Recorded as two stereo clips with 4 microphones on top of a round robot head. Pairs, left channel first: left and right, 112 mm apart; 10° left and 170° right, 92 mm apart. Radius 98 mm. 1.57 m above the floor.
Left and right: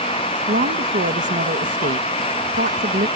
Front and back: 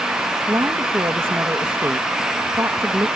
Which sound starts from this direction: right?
A woman speaking, at 0.5 s.